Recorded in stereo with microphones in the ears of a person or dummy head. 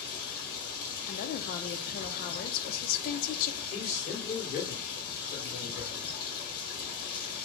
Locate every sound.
0.0 s running water: 55° left (ahead or behind), 1.4 m
1.1 s a woman speaking: 50° left (ahead or behind), 0.5 m
3.7 s a man speaking: 35° left (ahead or behind), 1.8 m